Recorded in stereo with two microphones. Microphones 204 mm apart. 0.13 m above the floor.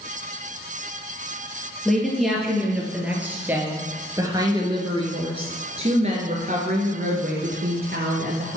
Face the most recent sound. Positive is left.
turn(degrees=-55)  # may be behind; listen again after turning